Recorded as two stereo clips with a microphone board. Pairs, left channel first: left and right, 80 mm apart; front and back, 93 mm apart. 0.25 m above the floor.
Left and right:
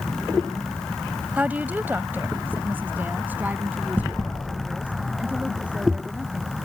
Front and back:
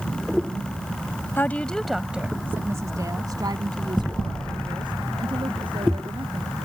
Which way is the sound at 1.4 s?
40° right.